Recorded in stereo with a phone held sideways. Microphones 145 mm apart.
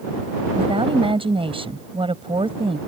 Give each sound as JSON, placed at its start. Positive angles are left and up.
{"t": 0.6, "sound": "a woman speaking", "side_deg": -40}